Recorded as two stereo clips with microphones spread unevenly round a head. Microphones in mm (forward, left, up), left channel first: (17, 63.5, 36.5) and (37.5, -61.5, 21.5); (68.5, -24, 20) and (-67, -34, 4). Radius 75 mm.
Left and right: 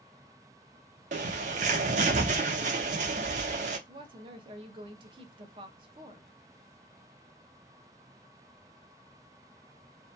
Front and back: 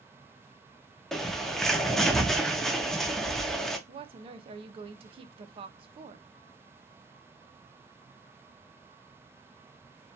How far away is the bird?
About 0.5 m.